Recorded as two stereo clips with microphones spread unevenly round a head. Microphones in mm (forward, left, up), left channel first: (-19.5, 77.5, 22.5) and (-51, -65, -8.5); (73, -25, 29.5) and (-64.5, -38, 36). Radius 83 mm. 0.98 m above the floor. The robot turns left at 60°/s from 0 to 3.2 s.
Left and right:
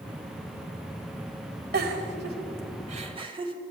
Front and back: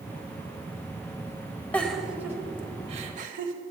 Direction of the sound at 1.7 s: 75° right.